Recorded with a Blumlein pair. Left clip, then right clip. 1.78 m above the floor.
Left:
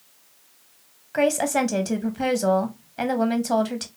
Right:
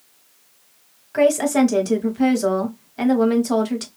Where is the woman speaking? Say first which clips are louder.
Right 4 dB; straight ahead, 1.1 m.